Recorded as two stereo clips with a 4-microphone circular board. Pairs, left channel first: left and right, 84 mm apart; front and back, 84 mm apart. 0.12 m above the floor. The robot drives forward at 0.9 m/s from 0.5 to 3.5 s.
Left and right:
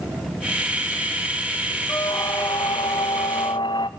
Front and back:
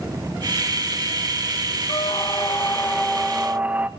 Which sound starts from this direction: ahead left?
A squeak, at 1.9 s.